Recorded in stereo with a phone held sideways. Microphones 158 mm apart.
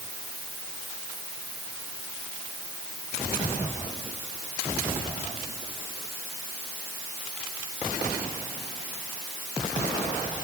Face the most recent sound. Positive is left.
No sound to turn to.